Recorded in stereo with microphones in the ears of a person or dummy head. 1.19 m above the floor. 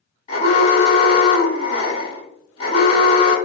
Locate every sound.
0.3 s an alarm: 35° left (ahead or behind), 1.4 m